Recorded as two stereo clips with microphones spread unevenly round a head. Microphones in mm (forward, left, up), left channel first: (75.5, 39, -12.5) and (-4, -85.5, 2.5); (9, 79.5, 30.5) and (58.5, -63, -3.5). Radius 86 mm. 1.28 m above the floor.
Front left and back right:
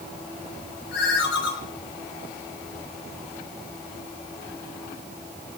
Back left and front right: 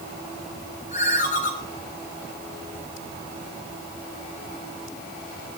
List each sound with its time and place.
0.9 s a ringtone: 75° left, 7 m